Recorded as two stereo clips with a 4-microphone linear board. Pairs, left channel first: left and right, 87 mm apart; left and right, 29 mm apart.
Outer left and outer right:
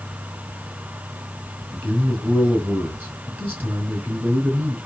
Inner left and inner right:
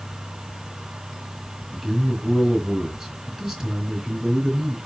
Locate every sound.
1.7 s a man speaking: 20° right (ahead or behind), 3.5 m